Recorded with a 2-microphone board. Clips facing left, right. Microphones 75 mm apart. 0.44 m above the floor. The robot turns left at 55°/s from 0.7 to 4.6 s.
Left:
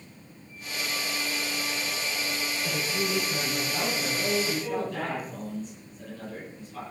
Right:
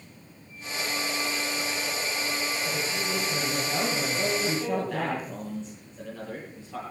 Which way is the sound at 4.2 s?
75° right (ahead or behind).